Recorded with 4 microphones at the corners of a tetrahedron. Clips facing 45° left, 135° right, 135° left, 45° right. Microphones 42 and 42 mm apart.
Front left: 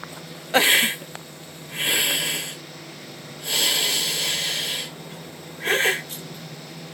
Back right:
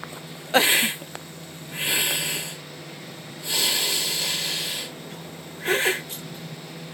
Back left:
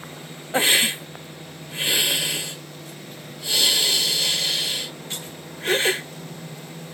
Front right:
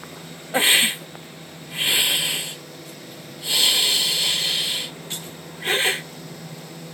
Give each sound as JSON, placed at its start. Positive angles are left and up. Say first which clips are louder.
{"t": 0.5, "sound": "a hiss", "louder": "front left 2 dB, front right 1 dB", "azimuth_deg": 30, "distance_m": 1.7}